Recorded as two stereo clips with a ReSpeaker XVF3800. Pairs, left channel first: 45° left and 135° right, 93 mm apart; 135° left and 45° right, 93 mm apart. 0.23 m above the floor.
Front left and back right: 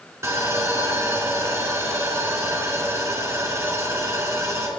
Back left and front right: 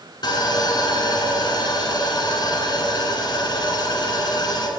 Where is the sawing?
170° left, 1.1 m.